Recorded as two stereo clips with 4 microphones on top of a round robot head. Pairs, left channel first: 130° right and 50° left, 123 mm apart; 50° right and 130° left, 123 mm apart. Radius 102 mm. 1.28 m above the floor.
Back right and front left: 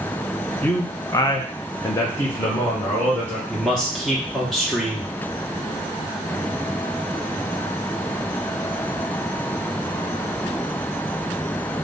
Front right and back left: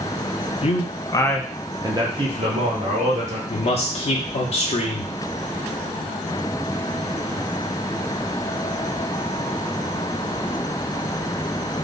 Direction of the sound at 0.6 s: 55° right.